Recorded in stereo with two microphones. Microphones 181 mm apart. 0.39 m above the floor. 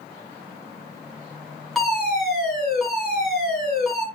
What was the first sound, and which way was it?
A fire alarm, centre (ahead or behind).